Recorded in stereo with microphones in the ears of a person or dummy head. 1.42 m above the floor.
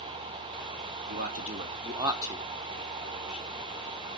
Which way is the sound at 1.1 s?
60° right (ahead or behind).